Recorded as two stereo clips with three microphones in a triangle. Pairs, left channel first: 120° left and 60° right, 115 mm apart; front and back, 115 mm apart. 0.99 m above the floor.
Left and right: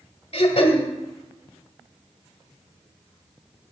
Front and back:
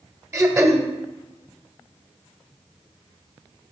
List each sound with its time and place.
0.3 s throat clearing: 120° left, 1.4 m